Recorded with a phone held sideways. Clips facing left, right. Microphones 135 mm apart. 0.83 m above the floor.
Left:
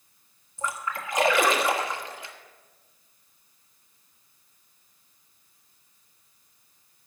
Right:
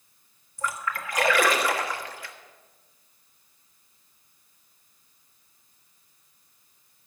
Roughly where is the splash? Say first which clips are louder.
Right 1 dB; left.